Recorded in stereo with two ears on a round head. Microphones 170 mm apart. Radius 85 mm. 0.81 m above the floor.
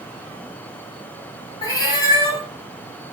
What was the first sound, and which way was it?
A cat meowing, 20° left (ahead or behind).